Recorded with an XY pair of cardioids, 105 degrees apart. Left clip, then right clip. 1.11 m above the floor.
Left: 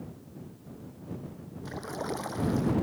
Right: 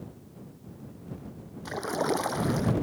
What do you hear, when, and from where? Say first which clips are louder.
1.6 s a splash: right 7 dB; 45° right